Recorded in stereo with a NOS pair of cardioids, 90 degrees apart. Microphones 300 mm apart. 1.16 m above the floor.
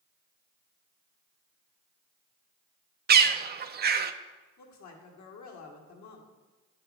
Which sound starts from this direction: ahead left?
A woman speaking, at 4.6 s.